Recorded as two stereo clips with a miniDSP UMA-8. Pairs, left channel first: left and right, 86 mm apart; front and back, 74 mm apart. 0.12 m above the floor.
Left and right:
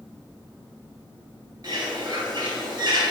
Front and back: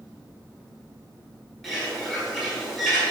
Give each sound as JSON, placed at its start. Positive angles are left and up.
{"t": 1.6, "sound": "a bird", "azimuth_deg": -95, "distance_m": 1.6}